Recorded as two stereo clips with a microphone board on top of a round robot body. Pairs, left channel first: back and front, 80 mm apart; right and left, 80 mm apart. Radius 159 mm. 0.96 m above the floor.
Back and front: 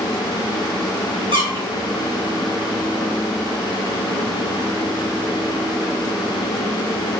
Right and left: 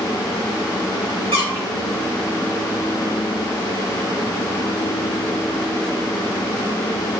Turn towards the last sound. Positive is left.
turn(degrees=-25)